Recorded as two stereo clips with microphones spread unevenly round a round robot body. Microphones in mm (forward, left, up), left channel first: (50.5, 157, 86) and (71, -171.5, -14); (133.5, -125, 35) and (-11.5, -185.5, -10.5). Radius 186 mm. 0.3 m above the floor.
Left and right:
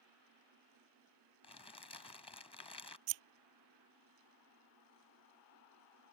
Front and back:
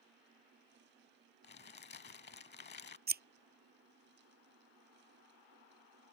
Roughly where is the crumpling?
Ahead.